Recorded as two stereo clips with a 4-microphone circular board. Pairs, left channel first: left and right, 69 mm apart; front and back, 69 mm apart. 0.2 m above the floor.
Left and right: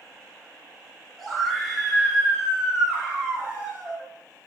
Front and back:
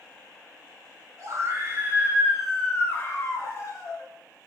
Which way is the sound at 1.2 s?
175° left.